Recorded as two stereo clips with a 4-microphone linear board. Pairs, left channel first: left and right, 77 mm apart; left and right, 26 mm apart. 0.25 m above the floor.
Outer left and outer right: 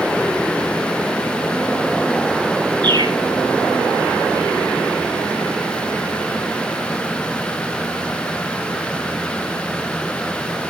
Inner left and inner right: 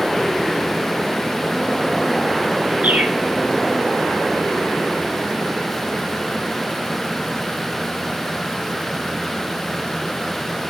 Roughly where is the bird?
Right.